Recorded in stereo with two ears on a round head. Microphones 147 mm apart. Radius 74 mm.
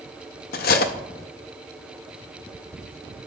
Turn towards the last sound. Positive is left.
turn(degrees=65)  # may be behind; listen again after turning